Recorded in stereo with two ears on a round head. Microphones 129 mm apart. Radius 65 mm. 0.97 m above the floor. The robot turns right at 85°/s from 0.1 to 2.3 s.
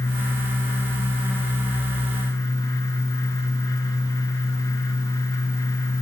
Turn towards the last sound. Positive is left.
No sound to turn to.